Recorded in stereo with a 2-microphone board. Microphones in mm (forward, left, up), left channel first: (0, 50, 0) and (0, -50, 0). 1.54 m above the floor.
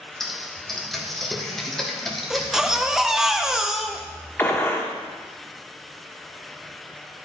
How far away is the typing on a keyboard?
About 1.4 m.